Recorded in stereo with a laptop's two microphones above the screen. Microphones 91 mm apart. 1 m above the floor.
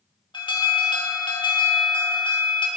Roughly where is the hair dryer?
I don't hear a hair dryer.